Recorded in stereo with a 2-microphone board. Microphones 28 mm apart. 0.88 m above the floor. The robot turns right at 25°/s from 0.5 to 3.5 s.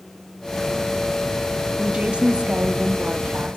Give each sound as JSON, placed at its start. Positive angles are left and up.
{"t": 1.8, "sound": "a woman speaking", "azimuth_deg": -150, "distance_m": 1.6}